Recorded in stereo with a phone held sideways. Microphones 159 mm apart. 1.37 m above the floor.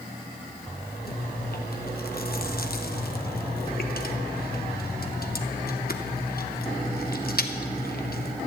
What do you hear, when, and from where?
1.1 s chewing: 65° left (ahead or behind), 1.0 m